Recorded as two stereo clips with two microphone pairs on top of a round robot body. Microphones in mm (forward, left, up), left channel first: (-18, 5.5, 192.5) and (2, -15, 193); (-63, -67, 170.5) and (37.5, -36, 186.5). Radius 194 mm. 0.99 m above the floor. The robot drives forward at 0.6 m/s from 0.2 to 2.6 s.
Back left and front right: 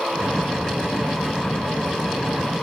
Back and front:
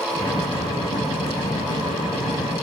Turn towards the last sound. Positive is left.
No sound to turn to.